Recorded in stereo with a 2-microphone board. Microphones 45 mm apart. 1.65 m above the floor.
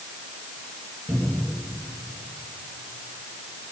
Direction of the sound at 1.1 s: 80° right.